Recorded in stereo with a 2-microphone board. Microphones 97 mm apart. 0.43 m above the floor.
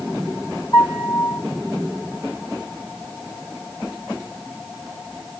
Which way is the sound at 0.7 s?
50° left (ahead or behind).